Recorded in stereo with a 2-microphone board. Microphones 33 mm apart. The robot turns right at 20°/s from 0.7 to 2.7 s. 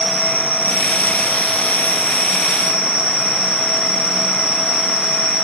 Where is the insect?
90° right, 1.5 m; by 5.5 s 50° right, 1.5 m.